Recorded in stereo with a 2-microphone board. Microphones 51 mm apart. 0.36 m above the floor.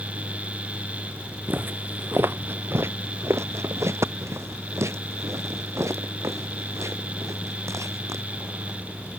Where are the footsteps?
35° right (ahead or behind); by 8.8 s 75° right (ahead or behind).